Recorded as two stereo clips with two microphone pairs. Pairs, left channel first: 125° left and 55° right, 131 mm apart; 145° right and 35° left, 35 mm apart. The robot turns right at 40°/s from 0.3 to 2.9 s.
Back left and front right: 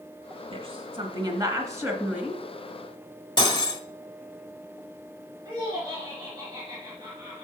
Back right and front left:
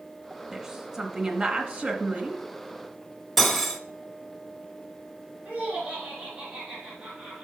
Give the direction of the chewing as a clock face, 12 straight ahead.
I don't hear chewing.